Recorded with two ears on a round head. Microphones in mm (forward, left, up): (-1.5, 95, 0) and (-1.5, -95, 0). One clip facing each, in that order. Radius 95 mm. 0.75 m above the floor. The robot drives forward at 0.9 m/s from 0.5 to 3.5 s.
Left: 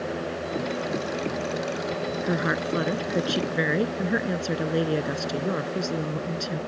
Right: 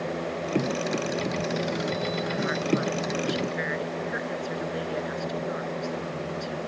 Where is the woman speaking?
70° left (ahead or behind); by 6.6 s 60° left (ahead or behind).